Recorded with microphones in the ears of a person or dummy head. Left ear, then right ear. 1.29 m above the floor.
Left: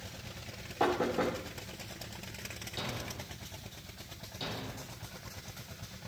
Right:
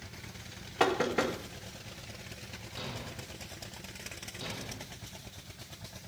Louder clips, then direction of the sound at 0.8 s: Right 2 dB; 65° right (ahead or behind).